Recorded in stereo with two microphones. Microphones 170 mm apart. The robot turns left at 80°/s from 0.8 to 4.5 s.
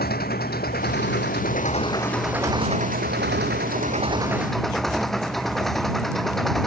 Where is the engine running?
115° left; by 6.7 s straight behind.